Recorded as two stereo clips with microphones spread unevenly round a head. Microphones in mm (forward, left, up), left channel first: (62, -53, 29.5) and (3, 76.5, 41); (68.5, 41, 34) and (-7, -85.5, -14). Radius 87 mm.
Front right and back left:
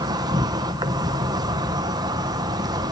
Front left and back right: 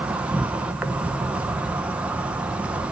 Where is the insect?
175° left, 1.3 m.